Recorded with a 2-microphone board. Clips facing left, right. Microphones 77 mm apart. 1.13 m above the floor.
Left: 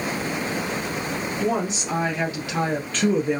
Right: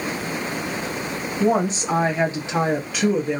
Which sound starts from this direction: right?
A woman speaking, at 1.4 s.